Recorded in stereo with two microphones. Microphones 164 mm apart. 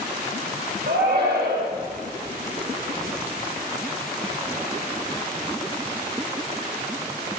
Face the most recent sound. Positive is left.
turn(degrees=-80)